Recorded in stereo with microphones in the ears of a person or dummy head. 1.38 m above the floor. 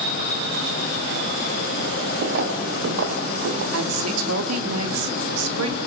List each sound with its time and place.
2.2 s footsteps: 55° right (ahead or behind), 3 m; by 3.6 s 65° right (ahead or behind), 3 m
3.7 s a woman speaking: 85° right, 3 m